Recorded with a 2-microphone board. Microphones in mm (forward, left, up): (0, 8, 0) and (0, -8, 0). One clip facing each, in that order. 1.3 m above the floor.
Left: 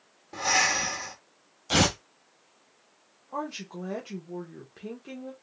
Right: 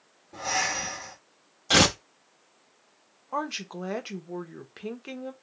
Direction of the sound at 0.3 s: 70° left (ahead or behind).